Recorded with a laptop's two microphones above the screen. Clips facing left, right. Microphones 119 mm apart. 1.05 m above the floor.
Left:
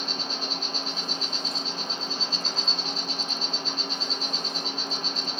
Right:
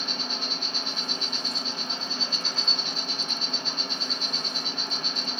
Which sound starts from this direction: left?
An insect, at 0.0 s.